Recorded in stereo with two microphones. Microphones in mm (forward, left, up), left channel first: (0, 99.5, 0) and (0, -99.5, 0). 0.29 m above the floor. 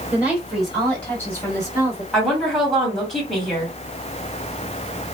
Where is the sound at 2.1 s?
Centre (ahead or behind), 1.9 m.